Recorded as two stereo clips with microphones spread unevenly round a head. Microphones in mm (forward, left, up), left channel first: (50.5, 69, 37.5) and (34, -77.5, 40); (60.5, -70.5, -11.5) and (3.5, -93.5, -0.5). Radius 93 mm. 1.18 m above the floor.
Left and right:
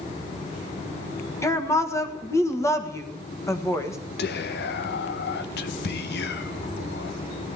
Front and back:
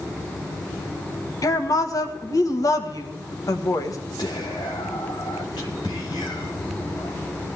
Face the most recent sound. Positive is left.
turn(degrees=80)